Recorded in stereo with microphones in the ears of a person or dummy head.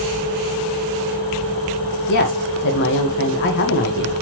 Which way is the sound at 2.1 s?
60° left (ahead or behind).